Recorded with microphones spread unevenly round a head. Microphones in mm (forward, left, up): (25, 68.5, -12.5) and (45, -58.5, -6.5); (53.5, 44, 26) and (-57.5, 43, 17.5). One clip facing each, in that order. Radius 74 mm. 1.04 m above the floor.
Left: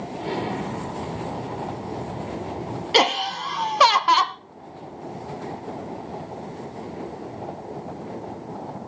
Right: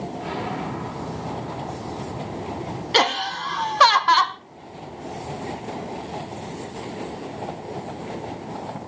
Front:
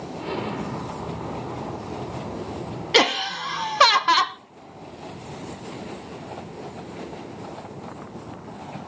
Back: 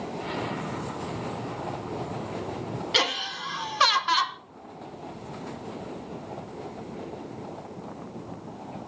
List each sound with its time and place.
0.2 s an explosion: 45° left, 2.5 m
2.9 s laughter: 25° left, 0.6 m